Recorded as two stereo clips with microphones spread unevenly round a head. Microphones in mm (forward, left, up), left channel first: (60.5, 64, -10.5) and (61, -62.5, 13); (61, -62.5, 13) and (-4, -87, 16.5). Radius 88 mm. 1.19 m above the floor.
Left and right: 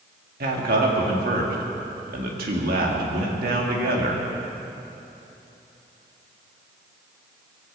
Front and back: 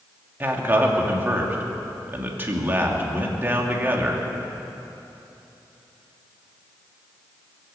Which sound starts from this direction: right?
A man speaking, at 0.4 s.